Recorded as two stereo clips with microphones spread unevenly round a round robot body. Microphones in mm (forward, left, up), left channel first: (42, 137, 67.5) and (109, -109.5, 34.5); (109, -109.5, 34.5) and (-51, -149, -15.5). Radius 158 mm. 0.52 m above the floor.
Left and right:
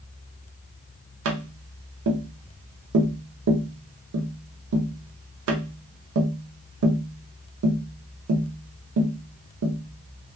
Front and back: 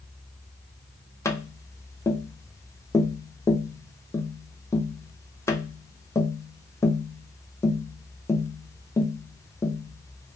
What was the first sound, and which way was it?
Tapping, 70° right.